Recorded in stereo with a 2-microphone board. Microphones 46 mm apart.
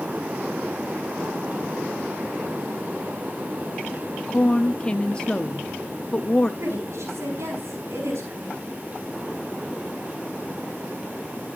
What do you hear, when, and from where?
4.3 s a woman speaking: 20° left (ahead or behind), 0.6 m
6.6 s a woman speaking: 75° right (ahead or behind), 6 m